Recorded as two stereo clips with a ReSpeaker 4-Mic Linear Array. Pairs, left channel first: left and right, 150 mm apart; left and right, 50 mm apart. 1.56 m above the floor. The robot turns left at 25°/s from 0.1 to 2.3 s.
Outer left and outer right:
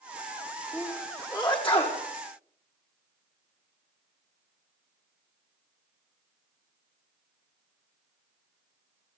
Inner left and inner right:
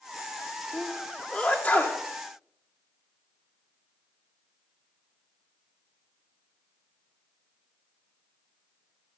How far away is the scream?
I don't hear a scream.